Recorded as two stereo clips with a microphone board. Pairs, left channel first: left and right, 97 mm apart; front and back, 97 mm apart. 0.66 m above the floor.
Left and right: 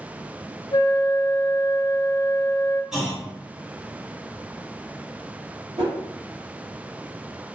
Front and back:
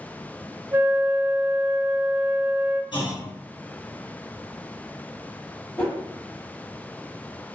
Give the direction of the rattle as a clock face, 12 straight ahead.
No rattle in this recording.